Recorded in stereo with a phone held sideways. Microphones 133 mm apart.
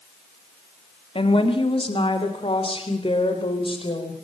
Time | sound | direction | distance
1.1 | a woman speaking | 45° left (ahead or behind) | 2 m